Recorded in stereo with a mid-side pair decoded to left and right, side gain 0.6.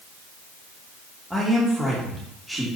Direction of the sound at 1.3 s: Straight ahead.